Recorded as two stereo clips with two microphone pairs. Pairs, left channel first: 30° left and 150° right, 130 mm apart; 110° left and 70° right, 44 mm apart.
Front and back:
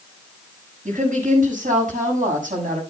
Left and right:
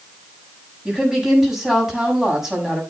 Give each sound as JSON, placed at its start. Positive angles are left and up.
{"t": 0.8, "sound": "a woman speaking", "azimuth_deg": -150, "distance_m": 7.0}